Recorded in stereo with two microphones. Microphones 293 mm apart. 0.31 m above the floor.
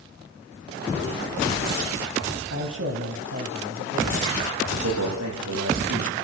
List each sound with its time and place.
2.5 s a man speaking: 55° right (ahead or behind), 2.5 m; by 4.5 s 35° right (ahead or behind), 1.7 m
4.7 s a man speaking: 60° right (ahead or behind), 10 m